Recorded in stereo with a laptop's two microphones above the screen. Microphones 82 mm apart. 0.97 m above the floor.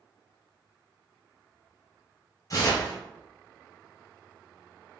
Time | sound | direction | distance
2.5 | tearing paper | 45° left (ahead or behind) | 1.0 m